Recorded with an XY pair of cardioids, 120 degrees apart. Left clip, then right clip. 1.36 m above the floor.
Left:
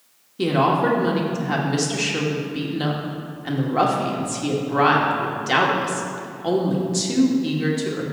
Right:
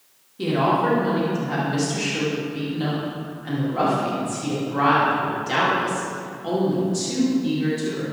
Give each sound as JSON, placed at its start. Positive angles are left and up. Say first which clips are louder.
{"t": 0.4, "sound": "a woman speaking", "louder": "left 2 dB", "azimuth_deg": 35, "distance_m": 2.0}